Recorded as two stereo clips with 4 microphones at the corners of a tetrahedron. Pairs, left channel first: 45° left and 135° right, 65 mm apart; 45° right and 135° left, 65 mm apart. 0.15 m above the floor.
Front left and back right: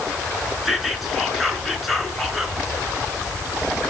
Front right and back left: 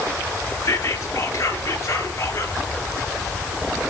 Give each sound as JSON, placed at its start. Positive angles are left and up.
{"t": 0.7, "sound": "whispering", "azimuth_deg": -50, "distance_m": 1.8}